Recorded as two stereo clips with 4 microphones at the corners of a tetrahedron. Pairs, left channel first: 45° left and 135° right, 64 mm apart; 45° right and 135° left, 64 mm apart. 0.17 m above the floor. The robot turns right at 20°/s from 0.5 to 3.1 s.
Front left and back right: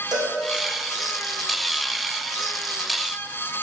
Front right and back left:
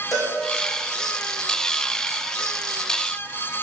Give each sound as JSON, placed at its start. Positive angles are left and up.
{"t": 0.1, "sound": "a cowbell", "azimuth_deg": -130, "distance_m": 3.5}